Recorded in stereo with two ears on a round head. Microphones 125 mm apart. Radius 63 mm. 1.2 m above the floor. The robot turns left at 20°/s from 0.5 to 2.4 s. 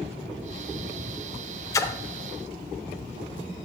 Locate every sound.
1.7 s a splash: 25° left (ahead or behind), 0.5 m; by 2.0 s 20° left (ahead or behind), 0.5 m